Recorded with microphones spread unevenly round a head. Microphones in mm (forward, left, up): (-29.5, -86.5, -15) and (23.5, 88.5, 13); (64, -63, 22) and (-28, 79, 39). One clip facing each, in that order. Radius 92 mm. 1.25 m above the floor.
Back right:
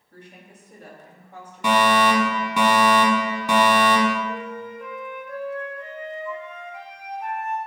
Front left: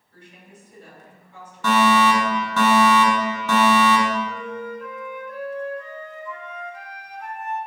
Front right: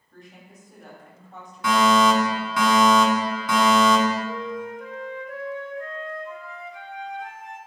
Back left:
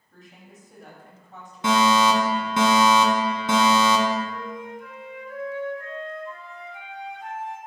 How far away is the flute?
About 3 m.